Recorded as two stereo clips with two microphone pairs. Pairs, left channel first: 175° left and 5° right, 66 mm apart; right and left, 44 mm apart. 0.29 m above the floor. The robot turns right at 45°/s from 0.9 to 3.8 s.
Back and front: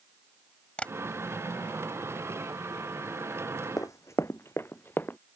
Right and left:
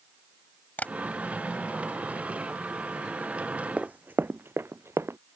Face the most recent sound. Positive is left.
turn(degrees=120)